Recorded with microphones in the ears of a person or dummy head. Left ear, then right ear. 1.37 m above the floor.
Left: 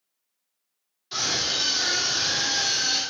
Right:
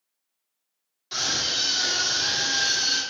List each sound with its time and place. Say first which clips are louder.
1.1 s a scream: even; 25° right (ahead or behind), 3 m